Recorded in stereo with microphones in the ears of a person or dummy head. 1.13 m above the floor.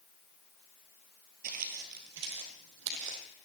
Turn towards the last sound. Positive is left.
turn(degrees=-65)  # may be behind; listen again after turning